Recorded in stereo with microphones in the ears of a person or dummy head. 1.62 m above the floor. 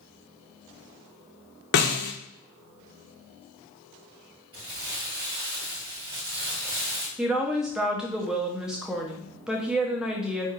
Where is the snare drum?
55° left (ahead or behind), 0.7 m.